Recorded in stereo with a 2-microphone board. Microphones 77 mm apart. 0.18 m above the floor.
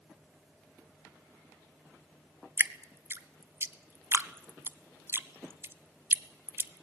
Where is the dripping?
30° right (ahead or behind), 0.5 m.